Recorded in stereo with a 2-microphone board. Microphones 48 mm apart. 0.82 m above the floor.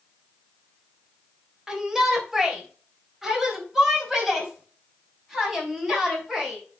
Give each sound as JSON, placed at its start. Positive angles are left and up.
{"t": 1.7, "sound": "a shout", "side_deg": -10, "distance_m": 3.0}